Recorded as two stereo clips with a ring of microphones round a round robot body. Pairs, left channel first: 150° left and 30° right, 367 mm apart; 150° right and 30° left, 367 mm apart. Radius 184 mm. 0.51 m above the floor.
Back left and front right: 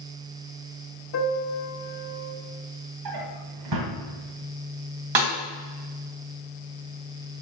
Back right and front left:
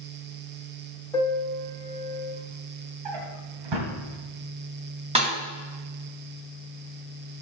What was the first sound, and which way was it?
A piano, 130° left.